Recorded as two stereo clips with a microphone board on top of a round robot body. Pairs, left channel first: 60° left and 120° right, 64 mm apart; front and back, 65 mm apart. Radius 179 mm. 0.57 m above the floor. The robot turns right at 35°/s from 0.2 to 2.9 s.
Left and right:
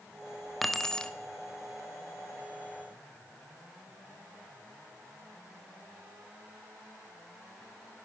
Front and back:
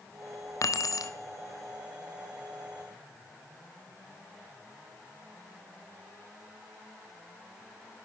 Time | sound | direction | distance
0.6 | keys jangling | 30° right | 1.1 m